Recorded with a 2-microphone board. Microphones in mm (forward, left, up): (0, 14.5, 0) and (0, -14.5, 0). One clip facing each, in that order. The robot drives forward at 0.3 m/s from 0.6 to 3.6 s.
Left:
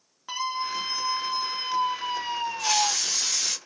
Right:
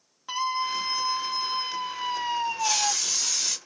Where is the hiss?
45° left (ahead or behind), 1.6 m; by 3.6 s 40° left (ahead or behind), 1.8 m.